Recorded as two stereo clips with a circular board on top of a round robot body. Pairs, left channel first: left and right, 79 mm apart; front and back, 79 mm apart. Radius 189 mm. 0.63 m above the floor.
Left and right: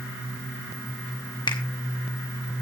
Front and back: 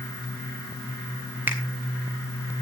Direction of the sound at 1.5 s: 115° left.